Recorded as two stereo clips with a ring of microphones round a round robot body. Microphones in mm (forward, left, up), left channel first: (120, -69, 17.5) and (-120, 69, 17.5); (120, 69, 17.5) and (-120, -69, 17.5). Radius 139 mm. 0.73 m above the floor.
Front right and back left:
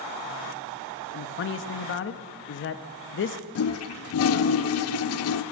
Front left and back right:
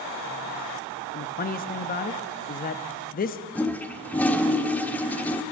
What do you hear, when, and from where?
1.1 s a man speaking: 15° right, 0.6 m
3.5 s a toilet flushing: 55° right, 0.5 m